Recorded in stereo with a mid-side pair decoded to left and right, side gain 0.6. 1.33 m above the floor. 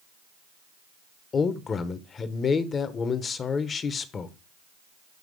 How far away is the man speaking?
About 0.9 m.